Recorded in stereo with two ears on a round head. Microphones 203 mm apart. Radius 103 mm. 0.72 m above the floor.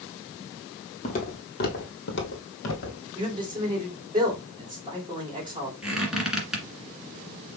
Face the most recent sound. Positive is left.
turn(degrees=-5)  # may be behind; listen again after turning